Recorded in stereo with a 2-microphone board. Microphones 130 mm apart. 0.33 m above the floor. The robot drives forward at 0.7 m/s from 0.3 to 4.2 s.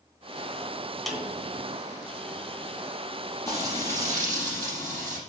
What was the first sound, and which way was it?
A snare drum, centre (ahead or behind).